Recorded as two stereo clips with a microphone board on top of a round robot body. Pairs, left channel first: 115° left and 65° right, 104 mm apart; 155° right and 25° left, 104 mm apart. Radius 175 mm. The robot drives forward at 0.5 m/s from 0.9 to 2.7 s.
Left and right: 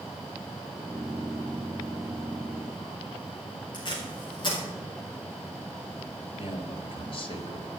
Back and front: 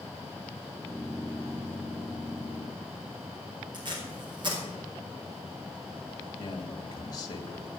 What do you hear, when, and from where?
3.7 s tape being pulled: 65° left, 4 m
6.4 s a man speaking: 145° left, 1.9 m